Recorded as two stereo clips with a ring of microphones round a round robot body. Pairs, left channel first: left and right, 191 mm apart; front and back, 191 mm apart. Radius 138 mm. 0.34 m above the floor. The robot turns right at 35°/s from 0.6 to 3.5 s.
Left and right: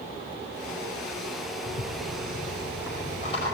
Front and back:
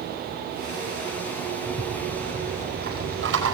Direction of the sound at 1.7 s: 100° left.